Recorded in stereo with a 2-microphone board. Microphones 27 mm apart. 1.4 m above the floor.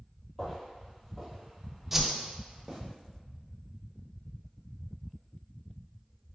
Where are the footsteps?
15° left (ahead or behind), 1.5 m; by 2.8 s 15° right (ahead or behind), 2.0 m.